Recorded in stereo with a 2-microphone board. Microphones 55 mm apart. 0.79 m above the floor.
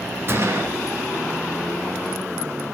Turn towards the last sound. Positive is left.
turn(degrees=-45)  # may be behind; listen again after turning